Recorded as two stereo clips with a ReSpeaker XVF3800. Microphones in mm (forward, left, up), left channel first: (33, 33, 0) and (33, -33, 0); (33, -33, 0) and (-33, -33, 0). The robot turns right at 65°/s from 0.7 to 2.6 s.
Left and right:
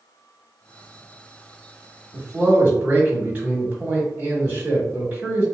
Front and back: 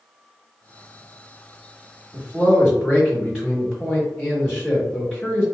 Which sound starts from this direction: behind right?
A man speaking, at 2.1 s.